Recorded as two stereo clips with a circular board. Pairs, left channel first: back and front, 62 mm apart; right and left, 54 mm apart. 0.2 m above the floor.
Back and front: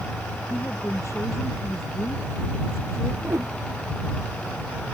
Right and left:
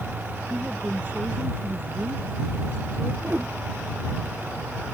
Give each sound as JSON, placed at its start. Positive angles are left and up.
{"t": 0.5, "sound": "a woman speaking", "azimuth_deg": 140}
{"t": 3.2, "sound": "a whoosh", "azimuth_deg": 40}